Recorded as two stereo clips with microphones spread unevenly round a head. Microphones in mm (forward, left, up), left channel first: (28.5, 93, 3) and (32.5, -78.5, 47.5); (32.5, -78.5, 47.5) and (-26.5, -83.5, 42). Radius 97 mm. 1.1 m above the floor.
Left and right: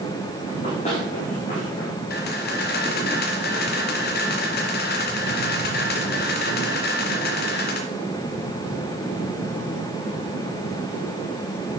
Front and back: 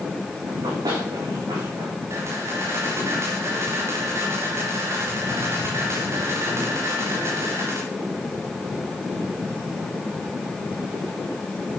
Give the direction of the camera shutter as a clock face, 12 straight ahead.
8 o'clock.